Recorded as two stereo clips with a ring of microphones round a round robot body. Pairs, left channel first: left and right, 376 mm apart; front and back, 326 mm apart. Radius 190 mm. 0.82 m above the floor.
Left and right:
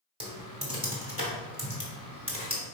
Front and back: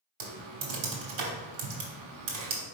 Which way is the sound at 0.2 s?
165° right.